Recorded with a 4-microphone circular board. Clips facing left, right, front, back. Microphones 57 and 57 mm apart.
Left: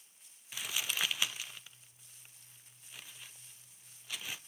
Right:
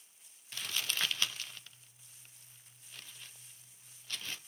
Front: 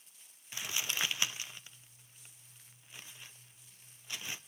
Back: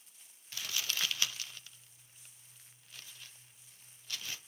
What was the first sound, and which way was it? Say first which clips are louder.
Crumpling: even, front 1 dB; 25° left.